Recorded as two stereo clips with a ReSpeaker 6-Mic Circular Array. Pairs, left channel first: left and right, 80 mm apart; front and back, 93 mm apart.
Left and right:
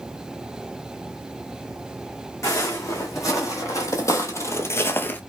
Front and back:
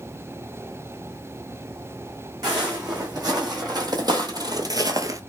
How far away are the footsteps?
About 2 m.